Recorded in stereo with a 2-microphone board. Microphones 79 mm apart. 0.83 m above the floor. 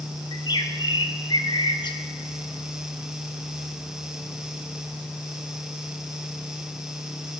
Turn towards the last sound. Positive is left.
turn(degrees=65)  # may be behind; listen again after turning